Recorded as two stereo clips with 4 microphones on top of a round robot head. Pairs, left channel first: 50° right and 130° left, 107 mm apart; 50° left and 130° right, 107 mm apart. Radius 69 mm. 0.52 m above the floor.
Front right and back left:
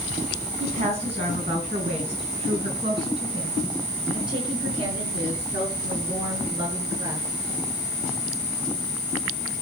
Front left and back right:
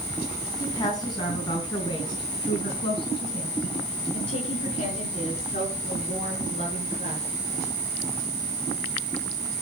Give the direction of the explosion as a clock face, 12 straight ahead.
I don't hear an explosion.